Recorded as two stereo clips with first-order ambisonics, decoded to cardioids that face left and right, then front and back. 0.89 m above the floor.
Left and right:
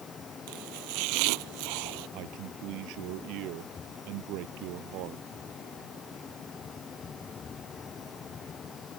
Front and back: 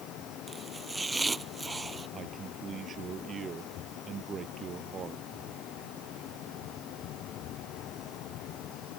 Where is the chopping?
100° right.